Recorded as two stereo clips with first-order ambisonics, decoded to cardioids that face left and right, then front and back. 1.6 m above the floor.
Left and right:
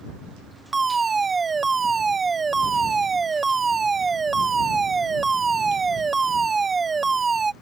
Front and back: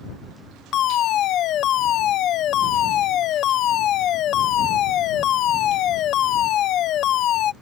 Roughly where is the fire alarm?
Ahead.